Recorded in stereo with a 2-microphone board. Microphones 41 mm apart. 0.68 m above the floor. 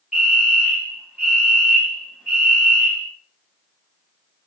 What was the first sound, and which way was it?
A fire alarm, 20° right (ahead or behind).